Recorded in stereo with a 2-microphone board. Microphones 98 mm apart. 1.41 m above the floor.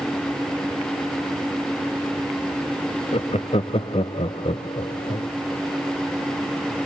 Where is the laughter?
85° left, 0.8 m.